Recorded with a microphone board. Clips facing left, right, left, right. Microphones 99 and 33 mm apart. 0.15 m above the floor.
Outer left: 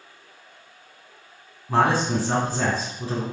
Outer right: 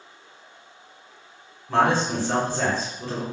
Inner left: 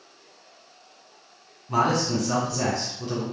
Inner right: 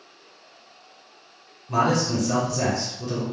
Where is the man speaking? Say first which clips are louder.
Even, inner right 1 dB; 10° left (ahead or behind), 1.6 m.